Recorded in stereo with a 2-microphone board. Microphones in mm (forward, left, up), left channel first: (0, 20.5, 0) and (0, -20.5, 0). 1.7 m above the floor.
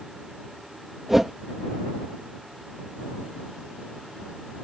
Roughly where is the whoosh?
Centre.